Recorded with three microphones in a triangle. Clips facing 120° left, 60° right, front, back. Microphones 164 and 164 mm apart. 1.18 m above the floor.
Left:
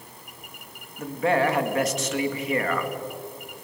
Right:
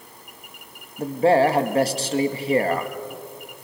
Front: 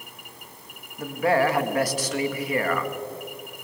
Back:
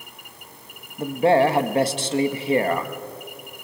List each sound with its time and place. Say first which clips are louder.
1.0 s a man speaking: right 6 dB, back 5 dB; 115° right, 2.0 m